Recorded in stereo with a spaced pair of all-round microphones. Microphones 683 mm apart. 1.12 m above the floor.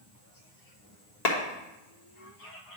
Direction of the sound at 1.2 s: 70° left (ahead or behind).